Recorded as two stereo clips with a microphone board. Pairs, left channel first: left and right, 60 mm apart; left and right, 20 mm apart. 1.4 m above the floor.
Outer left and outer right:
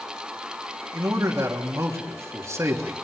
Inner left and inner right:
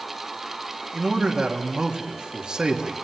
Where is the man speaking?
55° right (ahead or behind), 3.5 m.